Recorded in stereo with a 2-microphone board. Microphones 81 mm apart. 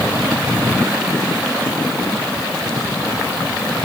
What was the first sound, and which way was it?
Only background noise.